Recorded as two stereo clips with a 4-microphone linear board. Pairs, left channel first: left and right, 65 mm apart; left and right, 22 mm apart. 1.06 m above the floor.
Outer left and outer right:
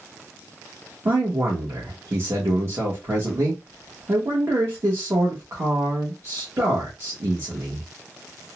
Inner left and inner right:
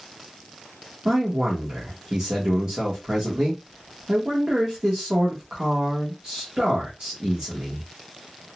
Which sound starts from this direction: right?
A man speaking, at 1.1 s.